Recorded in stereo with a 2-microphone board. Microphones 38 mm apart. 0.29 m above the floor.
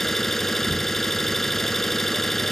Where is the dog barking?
No dog barking in this recording.